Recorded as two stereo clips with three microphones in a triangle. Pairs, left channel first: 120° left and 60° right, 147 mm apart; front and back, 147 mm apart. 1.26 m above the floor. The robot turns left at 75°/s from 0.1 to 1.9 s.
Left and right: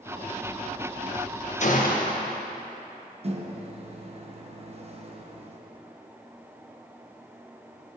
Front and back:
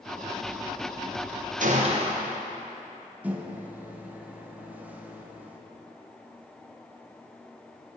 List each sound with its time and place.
1.6 s a gunshot: 155° left, 0.9 m; by 2.3 s 135° left, 0.9 m
3.2 s a microwave: 100° right, 0.8 m